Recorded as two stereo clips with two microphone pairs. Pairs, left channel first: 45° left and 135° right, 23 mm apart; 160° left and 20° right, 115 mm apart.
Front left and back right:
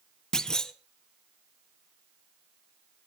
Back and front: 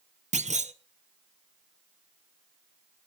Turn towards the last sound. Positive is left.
turn(degrees=-15)